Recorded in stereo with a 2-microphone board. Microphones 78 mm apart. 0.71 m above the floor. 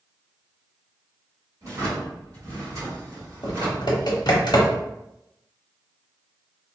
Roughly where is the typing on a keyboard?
Left.